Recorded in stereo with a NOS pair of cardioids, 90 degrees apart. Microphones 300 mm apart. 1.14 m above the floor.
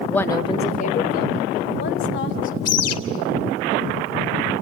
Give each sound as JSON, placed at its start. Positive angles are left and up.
{"t": 0.1, "sound": "a woman speaking", "azimuth_deg": 0, "distance_m": 1.6}
{"t": 2.6, "sound": "a bird", "azimuth_deg": 55, "distance_m": 3.0}